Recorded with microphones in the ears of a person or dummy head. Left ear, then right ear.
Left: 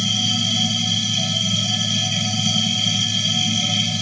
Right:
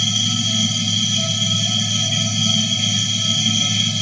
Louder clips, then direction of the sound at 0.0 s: Right 1 dB; centre (ahead or behind).